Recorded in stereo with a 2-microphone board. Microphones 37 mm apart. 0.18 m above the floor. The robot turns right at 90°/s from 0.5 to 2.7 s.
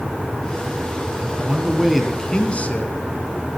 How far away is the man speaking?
About 2 m.